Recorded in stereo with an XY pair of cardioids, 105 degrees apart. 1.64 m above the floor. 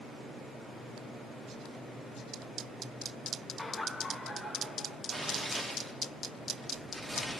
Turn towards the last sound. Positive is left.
turn(degrees=0)